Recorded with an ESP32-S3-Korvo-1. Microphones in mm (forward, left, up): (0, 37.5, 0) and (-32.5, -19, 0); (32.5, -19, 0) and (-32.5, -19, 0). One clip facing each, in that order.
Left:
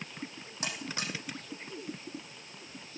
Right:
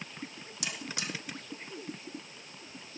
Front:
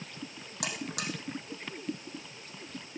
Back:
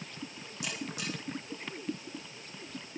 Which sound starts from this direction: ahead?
A buzzer, at 0.6 s.